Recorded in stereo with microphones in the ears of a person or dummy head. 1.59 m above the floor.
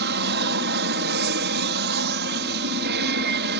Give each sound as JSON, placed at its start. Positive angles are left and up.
{"t": 0.0, "sound": "an aircraft", "side_deg": -55}